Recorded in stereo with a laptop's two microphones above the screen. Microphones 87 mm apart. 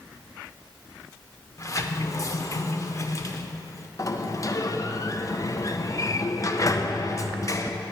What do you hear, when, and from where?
1.6 s a sliding door: 40° left (ahead or behind), 0.6 m
4.0 s a sliding door: 40° left (ahead or behind), 0.6 m